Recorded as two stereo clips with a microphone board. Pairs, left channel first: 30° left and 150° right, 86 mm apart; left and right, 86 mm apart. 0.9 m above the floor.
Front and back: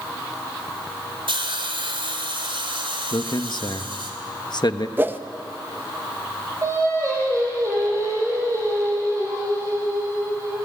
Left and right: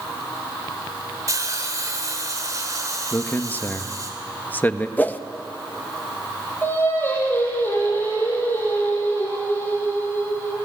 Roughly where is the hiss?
Behind right.